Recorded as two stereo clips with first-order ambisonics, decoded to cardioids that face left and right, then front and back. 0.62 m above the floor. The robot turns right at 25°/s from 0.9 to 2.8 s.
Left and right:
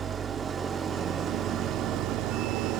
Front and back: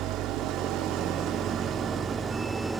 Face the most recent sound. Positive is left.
turn(degrees=-105)